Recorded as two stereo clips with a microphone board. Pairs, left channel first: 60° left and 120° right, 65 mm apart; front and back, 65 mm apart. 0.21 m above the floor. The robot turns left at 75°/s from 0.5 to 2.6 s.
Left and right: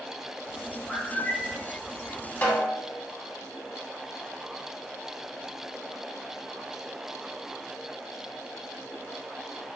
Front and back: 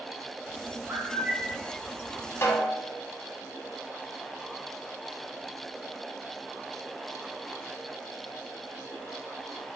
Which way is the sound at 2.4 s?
5° left.